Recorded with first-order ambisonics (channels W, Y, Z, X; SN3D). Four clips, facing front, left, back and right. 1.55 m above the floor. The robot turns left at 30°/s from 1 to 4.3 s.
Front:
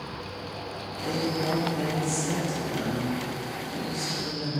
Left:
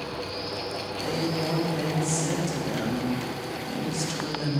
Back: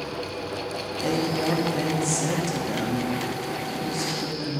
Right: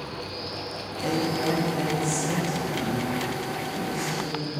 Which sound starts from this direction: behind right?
A woman speaking, at 1.0 s.